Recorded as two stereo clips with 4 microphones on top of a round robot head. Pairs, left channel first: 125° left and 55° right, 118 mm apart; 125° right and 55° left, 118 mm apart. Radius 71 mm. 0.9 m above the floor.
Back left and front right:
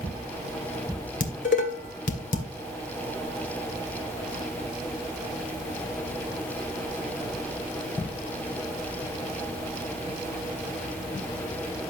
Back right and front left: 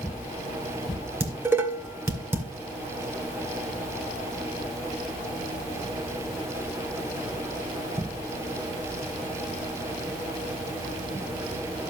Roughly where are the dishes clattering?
Behind left.